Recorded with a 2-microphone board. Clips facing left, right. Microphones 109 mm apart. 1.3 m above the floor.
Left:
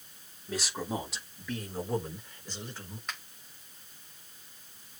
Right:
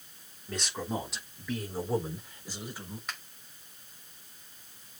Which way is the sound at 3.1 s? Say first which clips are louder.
Left 1 dB; centre (ahead or behind).